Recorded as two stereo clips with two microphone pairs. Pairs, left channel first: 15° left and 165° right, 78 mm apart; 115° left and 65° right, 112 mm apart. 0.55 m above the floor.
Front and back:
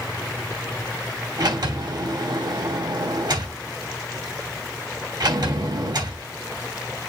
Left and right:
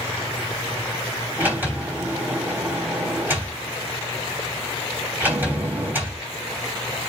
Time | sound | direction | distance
1.4 | a sliding door | 140° right | 3 m